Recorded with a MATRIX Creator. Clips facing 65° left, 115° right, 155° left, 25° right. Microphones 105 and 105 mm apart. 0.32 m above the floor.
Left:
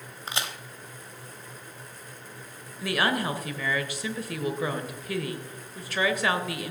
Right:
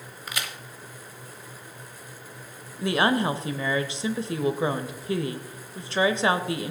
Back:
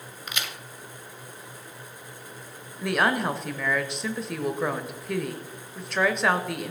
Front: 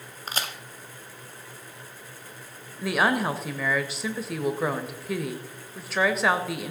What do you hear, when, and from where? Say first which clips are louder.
0.3 s a crack: left 2 dB, front 3 dB; 15° left, 1.0 m
2.8 s a woman speaking: right 4 dB, even; 105° right, 1.0 m